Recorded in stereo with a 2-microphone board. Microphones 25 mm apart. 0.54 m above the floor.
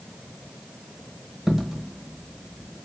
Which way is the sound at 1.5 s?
10° right (ahead or behind).